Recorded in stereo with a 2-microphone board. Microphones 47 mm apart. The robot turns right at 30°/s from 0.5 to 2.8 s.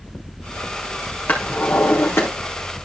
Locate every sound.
1.3 s a drawer: 40° left (ahead or behind), 3.5 m; by 2.3 s 70° left (ahead or behind), 3.5 m